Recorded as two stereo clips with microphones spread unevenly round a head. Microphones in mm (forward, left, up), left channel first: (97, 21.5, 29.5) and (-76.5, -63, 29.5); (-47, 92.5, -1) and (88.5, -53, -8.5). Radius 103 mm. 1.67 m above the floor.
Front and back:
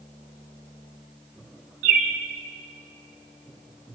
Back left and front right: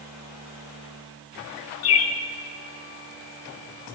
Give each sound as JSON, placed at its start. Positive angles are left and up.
{"t": 1.8, "sound": "a bird", "azimuth_deg": 145, "distance_m": 0.7}